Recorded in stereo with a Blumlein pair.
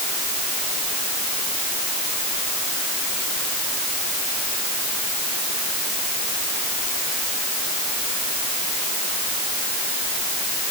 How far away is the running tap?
I don't hear a running tap.